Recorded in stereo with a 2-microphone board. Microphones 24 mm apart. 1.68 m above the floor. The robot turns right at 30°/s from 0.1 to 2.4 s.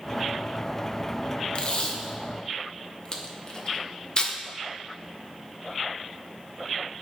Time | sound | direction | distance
1.6 | tape being pulled | 40° left (ahead or behind) | 0.8 m